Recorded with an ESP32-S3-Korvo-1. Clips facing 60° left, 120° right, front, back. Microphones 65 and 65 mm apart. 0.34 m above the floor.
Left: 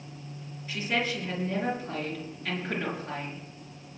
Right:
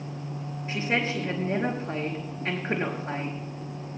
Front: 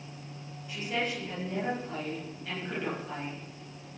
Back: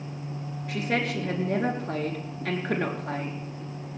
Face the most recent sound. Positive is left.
turn(degrees=-175)